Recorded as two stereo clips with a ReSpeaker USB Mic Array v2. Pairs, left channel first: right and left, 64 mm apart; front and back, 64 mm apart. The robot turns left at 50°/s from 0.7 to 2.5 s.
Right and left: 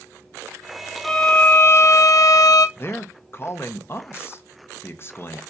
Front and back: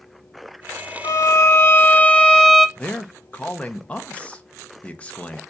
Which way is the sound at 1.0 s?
5° right.